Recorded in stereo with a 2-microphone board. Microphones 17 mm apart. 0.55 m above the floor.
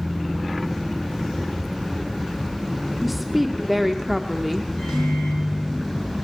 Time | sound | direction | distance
3.0 | a woman speaking | 5° left (ahead or behind) | 0.9 m
4.8 | a microwave | 60° left (ahead or behind) | 7.5 m